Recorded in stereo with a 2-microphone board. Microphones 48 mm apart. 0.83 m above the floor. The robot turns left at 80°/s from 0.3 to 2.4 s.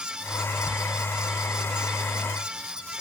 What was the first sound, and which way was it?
Only background noise.